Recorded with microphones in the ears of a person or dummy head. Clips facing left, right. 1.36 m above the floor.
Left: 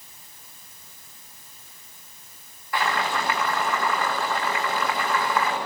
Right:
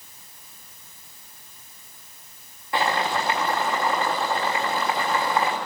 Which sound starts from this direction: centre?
Boiling, at 2.7 s.